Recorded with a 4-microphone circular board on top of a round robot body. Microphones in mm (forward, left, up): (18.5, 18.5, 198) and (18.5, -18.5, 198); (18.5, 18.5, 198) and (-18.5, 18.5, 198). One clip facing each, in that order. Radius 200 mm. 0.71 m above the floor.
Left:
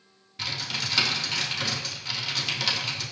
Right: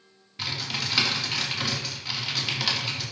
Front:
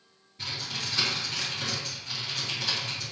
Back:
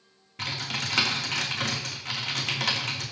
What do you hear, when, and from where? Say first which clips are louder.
0.4 s typing on a keyboard: even, back 3 dB; 175° right, 3 m